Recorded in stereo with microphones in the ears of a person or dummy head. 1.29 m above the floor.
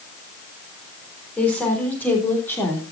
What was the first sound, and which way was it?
A woman speaking, 10° left (ahead or behind).